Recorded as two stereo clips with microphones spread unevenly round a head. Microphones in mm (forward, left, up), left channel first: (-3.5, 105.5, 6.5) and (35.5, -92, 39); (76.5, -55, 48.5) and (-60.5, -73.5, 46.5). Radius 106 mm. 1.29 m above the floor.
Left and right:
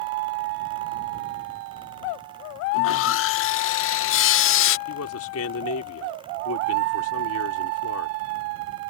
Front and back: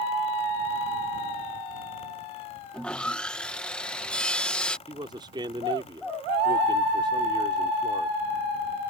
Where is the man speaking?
120° left.